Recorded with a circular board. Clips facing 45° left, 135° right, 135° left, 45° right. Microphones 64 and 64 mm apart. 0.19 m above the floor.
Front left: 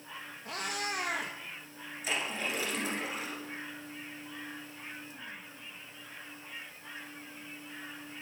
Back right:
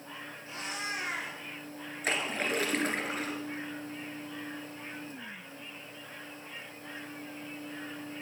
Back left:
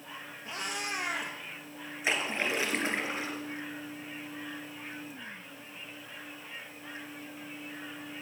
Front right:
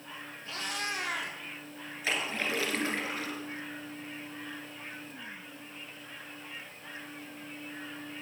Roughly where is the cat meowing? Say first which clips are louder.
Front left 2 dB, even; ahead left.